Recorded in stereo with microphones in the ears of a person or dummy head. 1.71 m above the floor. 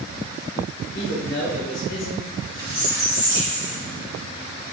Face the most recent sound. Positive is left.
turn(degrees=-60)  # may be behind; listen again after turning